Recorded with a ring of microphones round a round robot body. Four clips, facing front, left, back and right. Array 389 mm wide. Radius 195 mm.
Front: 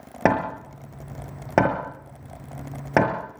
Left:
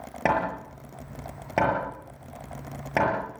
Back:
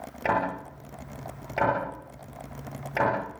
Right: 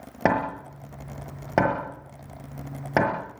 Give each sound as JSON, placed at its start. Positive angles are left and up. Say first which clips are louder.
{"t": 0.2, "sound": "hammering", "louder": "right 1 dB, front 5 dB", "azimuth_deg": -20, "distance_m": 6.5}